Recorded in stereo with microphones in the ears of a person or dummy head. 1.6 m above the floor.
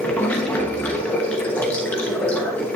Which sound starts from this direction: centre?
Running water, at 0.0 s.